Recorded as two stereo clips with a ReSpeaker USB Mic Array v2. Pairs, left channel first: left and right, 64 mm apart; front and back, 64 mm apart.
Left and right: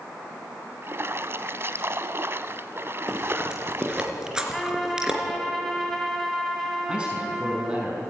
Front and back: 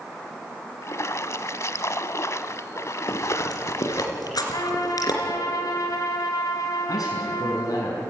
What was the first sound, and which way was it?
A splash, 40° right.